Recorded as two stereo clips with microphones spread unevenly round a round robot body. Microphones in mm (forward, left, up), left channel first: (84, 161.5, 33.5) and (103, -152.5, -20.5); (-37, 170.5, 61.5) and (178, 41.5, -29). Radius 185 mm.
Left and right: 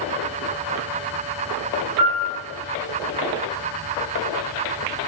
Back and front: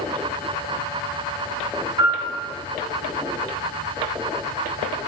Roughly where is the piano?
Ahead right.